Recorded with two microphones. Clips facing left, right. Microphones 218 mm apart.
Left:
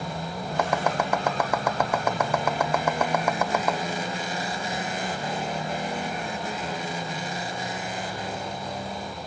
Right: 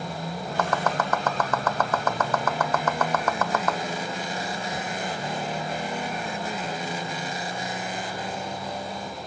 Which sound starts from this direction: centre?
Chopping, at 0.6 s.